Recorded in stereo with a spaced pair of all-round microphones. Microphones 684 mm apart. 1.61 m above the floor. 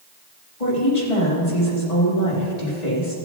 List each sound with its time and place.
0.6 s a woman speaking: 70° left (ahead or behind), 4 m